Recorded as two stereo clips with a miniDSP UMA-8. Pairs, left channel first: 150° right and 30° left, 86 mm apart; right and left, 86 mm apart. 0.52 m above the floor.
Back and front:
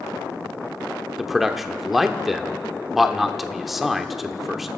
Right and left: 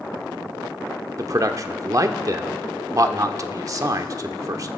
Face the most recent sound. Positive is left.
turn(degrees=115)